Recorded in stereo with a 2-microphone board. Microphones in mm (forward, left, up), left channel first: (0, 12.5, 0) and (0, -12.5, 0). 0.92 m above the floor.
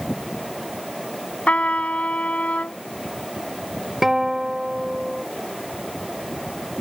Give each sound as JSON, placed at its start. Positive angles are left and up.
{"t": 1.5, "sound": "a trumpet", "side_deg": 70}
{"t": 4.0, "sound": "a guitar", "side_deg": -15}